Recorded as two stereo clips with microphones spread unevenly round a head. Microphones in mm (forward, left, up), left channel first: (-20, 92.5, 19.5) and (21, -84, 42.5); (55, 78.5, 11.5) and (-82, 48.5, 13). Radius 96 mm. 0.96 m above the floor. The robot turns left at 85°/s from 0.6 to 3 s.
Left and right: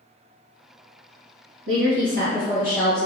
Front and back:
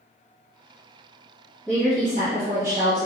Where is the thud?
No thud in this recording.